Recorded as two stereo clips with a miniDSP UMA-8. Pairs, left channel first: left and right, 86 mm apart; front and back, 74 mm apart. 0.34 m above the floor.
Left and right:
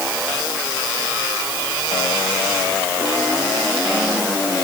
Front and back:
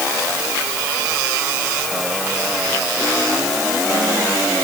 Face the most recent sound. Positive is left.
No sound to turn to.